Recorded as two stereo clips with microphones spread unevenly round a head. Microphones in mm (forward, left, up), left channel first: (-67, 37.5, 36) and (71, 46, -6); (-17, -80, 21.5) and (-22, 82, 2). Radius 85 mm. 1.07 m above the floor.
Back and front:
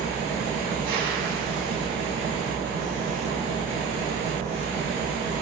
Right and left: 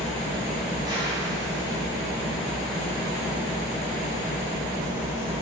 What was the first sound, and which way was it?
An engine running, 20° left.